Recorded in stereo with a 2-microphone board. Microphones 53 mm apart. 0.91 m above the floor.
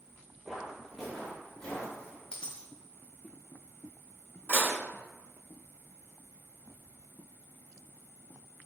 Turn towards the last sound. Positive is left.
turn(degrees=30)  # may be behind; listen again after turning